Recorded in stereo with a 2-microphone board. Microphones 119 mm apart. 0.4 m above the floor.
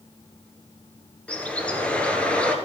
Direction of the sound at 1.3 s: 10° left (ahead or behind).